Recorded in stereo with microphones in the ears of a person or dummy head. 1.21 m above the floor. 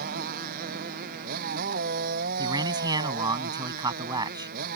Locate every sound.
0.0 s a motorcycle: 55° right (ahead or behind)
2.4 s a man speaking: 20° right (ahead or behind)